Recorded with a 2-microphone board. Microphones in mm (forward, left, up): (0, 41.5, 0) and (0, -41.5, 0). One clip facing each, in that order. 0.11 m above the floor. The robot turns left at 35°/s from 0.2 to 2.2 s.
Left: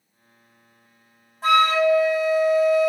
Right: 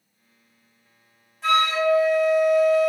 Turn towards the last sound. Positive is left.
turn(degrees=15)  # may be behind; listen again after turning